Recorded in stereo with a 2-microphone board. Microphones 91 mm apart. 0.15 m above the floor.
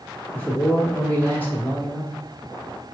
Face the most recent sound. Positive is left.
turn(degrees=20)  # may be behind; listen again after turning